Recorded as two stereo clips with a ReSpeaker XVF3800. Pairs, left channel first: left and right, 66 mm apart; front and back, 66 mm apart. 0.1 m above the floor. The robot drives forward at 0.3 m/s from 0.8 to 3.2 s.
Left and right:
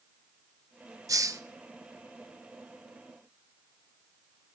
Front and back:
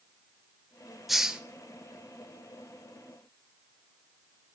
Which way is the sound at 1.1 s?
90° right.